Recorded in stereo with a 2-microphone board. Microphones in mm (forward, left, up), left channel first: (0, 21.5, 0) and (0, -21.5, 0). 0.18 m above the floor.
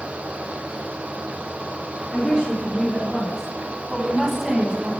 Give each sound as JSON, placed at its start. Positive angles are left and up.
{"t": 2.1, "sound": "a woman speaking", "side_deg": 20, "distance_m": 2.0}